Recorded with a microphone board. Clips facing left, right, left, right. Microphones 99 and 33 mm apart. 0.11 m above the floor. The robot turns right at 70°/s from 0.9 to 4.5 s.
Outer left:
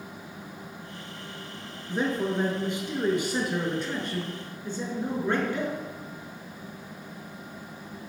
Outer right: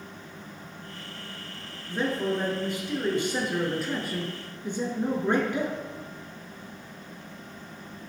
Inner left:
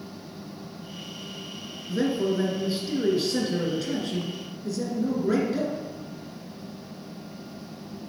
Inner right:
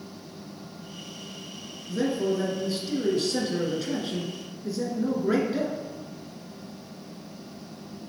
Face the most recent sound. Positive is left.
turn(degrees=-20)  # may be behind; listen again after turning